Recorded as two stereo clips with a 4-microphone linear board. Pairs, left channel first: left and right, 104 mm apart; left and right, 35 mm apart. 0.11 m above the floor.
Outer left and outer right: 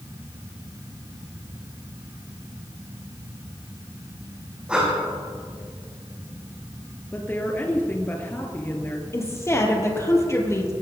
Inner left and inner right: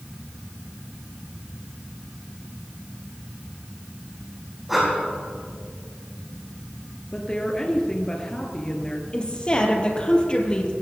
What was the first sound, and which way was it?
Breathing, 10° right (ahead or behind).